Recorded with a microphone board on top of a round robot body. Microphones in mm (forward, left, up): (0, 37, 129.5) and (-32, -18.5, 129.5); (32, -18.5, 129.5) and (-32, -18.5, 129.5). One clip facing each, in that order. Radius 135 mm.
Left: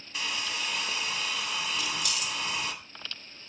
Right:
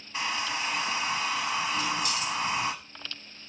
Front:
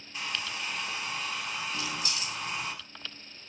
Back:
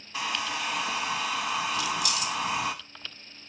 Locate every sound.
0.1 s a hair dryer: straight behind, 0.7 m
1.7 s keys jangling: 60° right, 1.0 m